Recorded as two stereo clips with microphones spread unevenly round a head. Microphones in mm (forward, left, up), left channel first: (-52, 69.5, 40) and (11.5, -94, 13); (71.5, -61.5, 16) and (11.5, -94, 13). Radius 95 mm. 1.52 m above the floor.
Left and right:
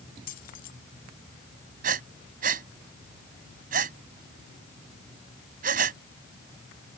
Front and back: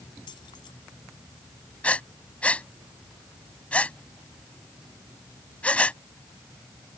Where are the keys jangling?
65° left.